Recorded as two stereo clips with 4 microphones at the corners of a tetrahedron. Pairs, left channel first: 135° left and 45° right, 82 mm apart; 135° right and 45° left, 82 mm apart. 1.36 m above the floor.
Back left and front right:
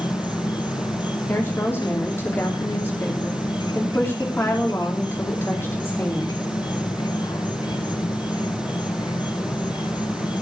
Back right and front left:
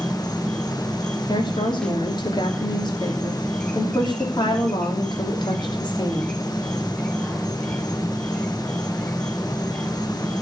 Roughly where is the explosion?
I don't hear an explosion.